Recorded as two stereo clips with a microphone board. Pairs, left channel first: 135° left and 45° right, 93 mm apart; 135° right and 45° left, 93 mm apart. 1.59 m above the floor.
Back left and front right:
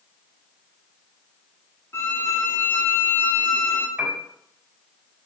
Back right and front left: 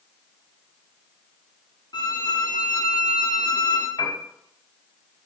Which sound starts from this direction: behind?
A violin, at 1.9 s.